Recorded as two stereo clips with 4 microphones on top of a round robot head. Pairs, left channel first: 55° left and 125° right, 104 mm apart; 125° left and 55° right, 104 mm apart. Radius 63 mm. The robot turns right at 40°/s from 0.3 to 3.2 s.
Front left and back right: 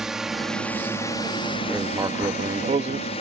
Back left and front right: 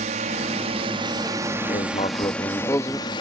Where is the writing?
155° left; by 3.1 s 150° right.